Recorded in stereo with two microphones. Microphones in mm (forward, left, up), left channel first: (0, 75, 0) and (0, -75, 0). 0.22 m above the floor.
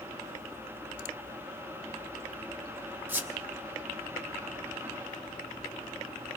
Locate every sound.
3.1 s a squeak: 15° right (ahead or behind), 1.0 m